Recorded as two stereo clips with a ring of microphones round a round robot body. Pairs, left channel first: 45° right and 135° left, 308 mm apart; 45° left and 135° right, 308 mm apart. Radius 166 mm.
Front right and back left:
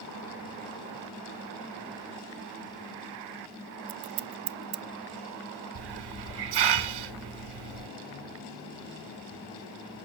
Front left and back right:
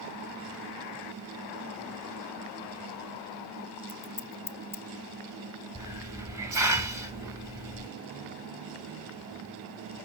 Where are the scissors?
130° left, 0.5 m.